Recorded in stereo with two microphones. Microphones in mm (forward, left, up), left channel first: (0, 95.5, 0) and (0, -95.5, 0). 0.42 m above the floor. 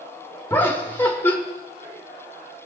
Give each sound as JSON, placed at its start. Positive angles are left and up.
{"t": 0.5, "sound": "laughter", "side_deg": 10, "distance_m": 1.2}